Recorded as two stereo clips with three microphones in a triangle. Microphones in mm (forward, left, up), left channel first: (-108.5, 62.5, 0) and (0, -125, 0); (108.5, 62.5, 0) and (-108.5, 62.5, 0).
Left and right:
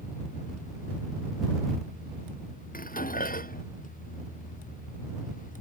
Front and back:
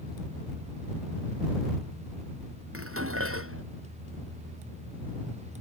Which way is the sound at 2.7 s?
170° left.